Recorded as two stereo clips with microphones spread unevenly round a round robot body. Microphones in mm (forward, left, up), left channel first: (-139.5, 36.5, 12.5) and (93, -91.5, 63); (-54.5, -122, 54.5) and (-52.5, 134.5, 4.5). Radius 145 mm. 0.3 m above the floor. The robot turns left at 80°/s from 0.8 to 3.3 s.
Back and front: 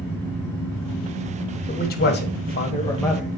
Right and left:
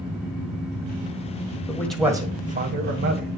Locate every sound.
1.7 s a man speaking: 170° right, 1.8 m; by 3.3 s 60° left, 1.8 m